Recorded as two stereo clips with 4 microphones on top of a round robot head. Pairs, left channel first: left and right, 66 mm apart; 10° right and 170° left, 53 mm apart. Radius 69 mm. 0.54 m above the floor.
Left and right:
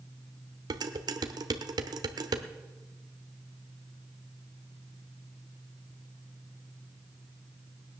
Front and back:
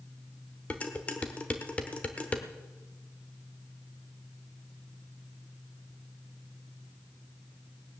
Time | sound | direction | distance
0.7 | dishes clattering | 75° right | 1.1 m